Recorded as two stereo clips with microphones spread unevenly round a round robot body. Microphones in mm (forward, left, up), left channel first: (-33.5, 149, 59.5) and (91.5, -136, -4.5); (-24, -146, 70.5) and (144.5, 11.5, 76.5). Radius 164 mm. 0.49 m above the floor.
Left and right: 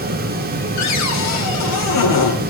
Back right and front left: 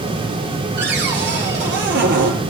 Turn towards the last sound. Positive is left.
turn(degrees=80)